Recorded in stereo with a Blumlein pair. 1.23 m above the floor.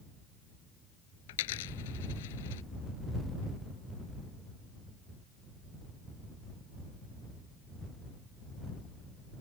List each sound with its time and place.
1.3 s a dropped coin: 55° left